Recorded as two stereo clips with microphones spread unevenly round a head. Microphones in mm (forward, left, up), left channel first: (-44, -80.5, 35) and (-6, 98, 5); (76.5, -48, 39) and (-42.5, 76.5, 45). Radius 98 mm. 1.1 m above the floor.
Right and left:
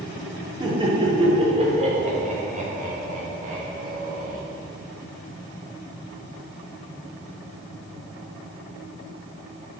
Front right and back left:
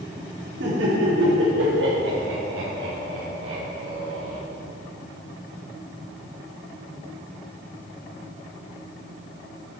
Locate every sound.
0.6 s laughter: 145° left, 3.5 m; by 4.4 s 120° left, 6 m